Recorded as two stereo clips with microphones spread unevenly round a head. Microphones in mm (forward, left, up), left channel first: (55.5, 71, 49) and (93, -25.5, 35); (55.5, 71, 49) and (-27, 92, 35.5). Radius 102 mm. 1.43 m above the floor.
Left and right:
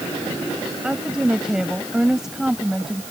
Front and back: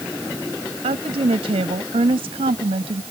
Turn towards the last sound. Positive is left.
turn(degrees=-160)